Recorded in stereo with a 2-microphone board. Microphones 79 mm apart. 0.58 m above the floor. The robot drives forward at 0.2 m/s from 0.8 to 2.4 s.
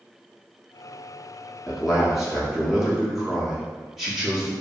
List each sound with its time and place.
1.7 s a man speaking: centre (ahead or behind), 0.7 m